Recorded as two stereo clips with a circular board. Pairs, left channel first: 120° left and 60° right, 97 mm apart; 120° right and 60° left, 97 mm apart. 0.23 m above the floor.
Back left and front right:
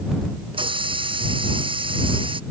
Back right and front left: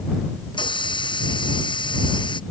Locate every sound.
0.5 s a hiss: 85° right